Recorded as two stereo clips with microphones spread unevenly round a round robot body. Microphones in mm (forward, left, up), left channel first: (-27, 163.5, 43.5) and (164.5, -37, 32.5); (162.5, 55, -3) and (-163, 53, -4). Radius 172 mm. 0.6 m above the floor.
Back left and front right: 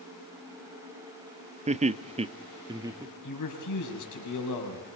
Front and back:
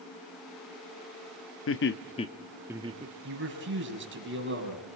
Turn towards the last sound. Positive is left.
turn(degrees=125)